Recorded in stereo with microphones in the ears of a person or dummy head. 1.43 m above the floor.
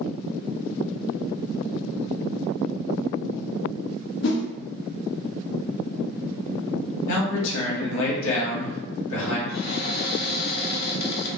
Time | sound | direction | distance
4.2 | a whoosh | 55° left (ahead or behind) | 0.5 m
7.1 | a man speaking | 75° left (ahead or behind) | 1.1 m
9.5 | a cupboard door | 35° left (ahead or behind) | 1.2 m